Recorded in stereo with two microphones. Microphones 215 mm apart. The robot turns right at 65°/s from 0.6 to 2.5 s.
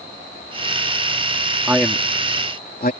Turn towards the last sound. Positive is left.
turn(degrees=45)  # may be behind; listen again after turning